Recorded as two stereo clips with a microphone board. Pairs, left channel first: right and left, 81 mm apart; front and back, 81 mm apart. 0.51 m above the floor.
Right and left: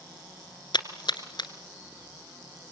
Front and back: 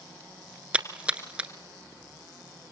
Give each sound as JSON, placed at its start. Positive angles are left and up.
{"t": 0.7, "sound": "a splash", "azimuth_deg": -105, "distance_m": 1.9}